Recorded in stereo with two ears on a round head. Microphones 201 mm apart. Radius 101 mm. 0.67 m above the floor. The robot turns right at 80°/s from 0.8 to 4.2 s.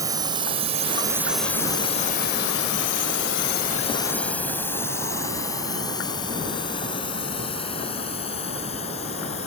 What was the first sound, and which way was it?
A drone, 15° right (ahead or behind).